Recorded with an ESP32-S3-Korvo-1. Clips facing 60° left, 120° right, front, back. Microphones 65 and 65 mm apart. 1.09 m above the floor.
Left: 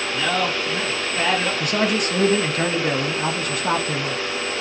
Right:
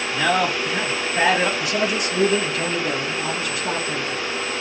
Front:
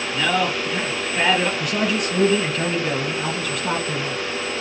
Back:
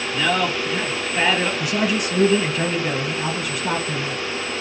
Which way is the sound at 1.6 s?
100° left.